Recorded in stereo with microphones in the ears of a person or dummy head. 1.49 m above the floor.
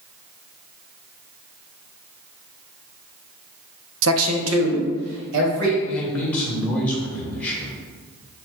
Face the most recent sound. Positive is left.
turn(degrees=0)  # may be behind; listen again after turning